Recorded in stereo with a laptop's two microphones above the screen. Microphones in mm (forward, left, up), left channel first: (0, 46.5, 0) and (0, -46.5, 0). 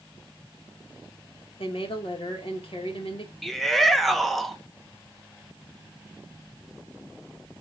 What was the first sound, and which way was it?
A woman speaking, 75° left (ahead or behind).